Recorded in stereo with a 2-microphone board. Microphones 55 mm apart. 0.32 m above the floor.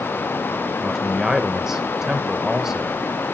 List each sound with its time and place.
0.8 s a man speaking: 10° right (ahead or behind), 0.8 m